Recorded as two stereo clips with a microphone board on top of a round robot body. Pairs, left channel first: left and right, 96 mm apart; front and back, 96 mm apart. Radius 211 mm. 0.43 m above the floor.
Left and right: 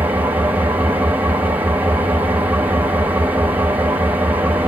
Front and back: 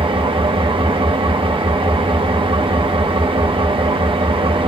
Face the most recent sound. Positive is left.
turn(degrees=-160)